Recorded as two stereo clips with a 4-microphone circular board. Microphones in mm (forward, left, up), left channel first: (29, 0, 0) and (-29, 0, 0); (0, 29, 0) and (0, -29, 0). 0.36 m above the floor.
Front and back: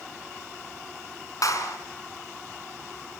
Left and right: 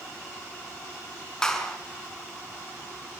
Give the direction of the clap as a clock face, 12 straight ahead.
12 o'clock.